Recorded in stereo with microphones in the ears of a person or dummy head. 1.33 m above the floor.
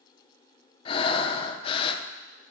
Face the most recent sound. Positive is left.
turn(degrees=30)  # may be behind; listen again after turning